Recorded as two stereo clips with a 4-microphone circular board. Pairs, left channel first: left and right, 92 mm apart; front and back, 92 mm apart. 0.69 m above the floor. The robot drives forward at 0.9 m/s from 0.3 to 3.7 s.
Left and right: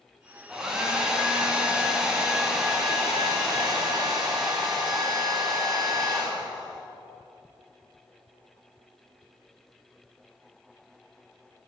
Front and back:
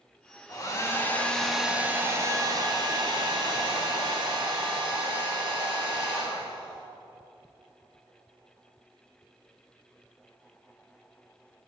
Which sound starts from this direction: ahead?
A hair dryer, at 0.5 s.